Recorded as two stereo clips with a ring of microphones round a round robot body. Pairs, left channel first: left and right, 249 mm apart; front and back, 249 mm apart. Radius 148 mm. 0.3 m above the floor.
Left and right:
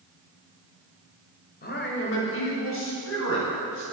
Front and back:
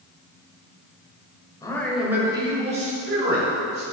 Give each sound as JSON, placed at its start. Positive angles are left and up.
{"t": 1.6, "sound": "a man speaking", "azimuth_deg": 65, "distance_m": 1.5}